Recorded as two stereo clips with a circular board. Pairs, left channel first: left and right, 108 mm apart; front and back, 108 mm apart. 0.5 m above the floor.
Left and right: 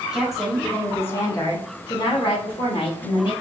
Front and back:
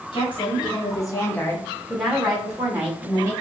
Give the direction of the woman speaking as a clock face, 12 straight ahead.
12 o'clock.